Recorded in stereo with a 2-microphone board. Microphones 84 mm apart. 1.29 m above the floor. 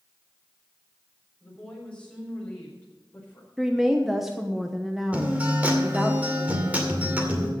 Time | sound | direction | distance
1.4 | a woman speaking | 15° left (ahead or behind) | 5.5 m
3.6 | a woman speaking | 5° right (ahead or behind) | 0.9 m
5.1 | a guitar | 20° right (ahead or behind) | 2.5 m